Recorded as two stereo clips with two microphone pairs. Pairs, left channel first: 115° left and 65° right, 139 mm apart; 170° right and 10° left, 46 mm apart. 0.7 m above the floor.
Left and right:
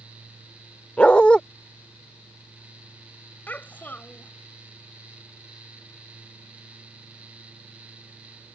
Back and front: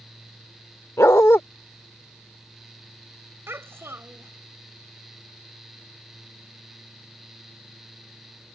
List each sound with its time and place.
1.0 s a dog barking: 165° right
3.5 s a child speaking: 35° left